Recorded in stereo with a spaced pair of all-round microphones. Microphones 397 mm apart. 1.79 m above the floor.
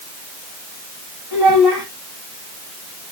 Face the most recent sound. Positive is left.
turn(degrees=-80)